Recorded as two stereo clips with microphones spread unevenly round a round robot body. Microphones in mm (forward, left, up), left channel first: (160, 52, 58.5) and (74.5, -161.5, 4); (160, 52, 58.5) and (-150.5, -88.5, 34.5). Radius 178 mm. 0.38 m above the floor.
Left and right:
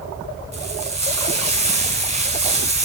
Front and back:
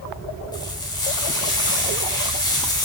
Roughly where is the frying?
Ahead right.